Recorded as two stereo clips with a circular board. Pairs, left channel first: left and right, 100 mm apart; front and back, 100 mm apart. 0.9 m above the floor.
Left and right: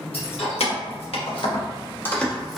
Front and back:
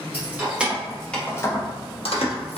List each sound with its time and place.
0.1 s keys jangling: 110° left, 1.1 m; by 2.6 s straight ahead, 0.8 m